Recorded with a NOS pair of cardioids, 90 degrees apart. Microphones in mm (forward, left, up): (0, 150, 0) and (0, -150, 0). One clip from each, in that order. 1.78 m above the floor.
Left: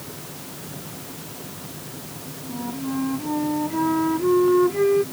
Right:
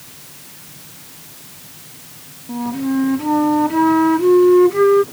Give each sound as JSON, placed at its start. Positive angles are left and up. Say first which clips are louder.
{"t": 2.5, "sound": "a flute", "louder": "right 8 dB", "azimuth_deg": -50}